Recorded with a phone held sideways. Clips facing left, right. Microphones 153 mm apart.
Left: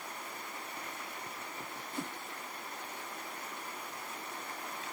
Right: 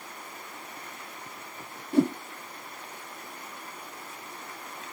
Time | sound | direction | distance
1.9 | a whoosh | 60° right (ahead or behind) | ?